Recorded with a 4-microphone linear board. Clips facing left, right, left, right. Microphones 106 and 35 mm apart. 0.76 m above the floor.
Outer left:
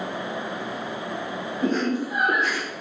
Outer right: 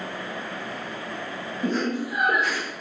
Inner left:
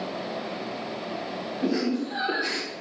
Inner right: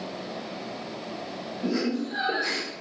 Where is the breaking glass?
I don't hear breaking glass.